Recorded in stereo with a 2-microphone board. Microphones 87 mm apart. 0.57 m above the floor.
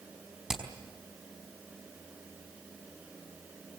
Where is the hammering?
5° right (ahead or behind), 4.5 m.